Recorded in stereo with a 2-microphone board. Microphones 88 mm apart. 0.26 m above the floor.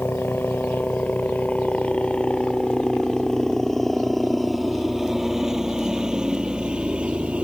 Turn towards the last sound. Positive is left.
turn(degrees=-15)  # may be behind; listen again after turning